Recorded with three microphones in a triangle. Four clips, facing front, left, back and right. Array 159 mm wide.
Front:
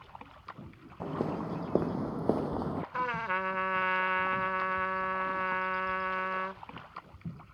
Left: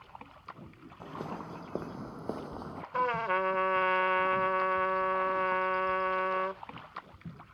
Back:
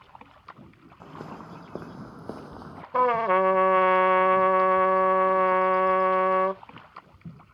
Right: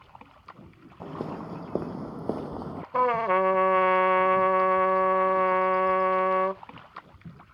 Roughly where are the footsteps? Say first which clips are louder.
Right 5 dB, front 7 dB; ahead right.